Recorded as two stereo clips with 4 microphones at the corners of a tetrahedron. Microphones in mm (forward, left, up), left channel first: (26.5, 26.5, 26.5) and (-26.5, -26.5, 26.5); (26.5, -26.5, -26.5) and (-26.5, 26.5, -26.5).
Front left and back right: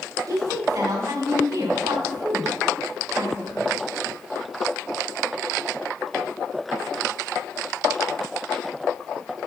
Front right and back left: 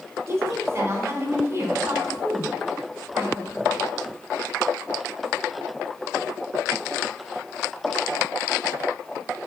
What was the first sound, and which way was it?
A woman speaking, 170° right.